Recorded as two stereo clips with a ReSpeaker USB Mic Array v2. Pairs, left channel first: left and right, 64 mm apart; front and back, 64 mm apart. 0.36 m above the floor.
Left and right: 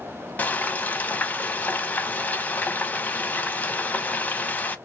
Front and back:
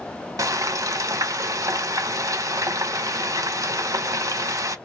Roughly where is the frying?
Behind left.